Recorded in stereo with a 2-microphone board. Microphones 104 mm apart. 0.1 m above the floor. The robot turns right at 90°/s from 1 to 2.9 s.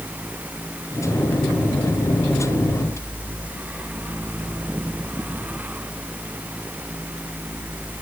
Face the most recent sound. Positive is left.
No sound to turn to.